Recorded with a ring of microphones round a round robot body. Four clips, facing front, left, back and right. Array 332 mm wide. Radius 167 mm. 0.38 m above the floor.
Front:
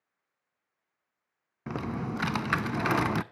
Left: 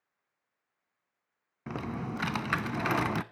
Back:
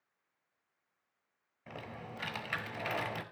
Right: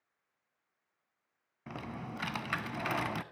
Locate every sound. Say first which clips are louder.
1.7 s typing on a keyboard: left 6 dB, front 13 dB; 25° left, 0.5 m